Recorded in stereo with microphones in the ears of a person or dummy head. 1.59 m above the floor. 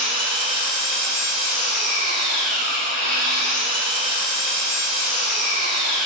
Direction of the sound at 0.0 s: 60° left (ahead or behind).